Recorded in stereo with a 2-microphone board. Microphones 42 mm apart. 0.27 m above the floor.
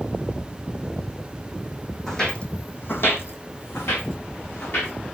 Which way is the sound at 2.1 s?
10° left (ahead or behind).